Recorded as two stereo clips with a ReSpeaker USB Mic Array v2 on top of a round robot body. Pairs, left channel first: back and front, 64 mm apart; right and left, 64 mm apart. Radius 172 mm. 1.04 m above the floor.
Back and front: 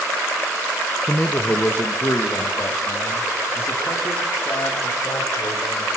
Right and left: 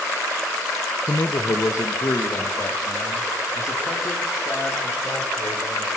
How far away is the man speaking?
About 1.5 m.